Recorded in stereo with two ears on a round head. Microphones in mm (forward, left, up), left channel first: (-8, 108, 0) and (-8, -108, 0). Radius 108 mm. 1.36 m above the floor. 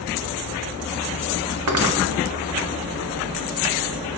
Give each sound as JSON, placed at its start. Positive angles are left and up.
{"t": 1.7, "sound": "cutlery clinking", "side_deg": -70, "distance_m": 1.7}